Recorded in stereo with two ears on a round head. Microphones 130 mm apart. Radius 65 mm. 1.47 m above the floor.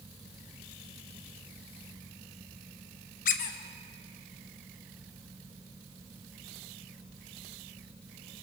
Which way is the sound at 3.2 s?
60° left (ahead or behind).